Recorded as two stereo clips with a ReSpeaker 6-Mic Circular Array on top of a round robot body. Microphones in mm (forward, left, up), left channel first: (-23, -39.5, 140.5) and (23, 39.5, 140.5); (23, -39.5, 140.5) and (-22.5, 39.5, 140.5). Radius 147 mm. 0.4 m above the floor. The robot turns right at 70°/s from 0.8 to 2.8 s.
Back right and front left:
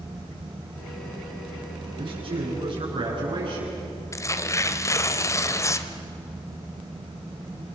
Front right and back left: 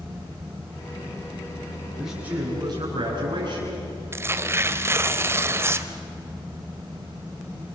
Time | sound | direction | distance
2.0 | a man speaking | 30° left | 8 m
4.1 | tearing paper | straight behind | 1.0 m